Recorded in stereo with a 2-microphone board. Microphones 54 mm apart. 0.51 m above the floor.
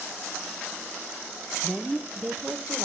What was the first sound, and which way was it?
A woman speaking, 5° right (ahead or behind).